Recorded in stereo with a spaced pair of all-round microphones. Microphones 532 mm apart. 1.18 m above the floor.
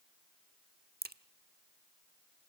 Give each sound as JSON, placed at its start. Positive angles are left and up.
{"t": 1.0, "sound": "a crack", "side_deg": -20, "distance_m": 0.8}